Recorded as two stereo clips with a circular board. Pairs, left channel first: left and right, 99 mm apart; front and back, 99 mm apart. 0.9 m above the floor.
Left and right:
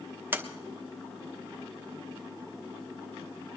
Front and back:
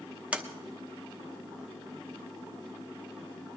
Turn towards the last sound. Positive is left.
turn(degrees=-120)